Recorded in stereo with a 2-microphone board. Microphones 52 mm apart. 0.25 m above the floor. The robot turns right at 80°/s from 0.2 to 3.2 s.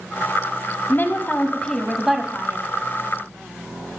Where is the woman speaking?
90° left, 1.2 m; by 2.6 s 130° right, 1.2 m.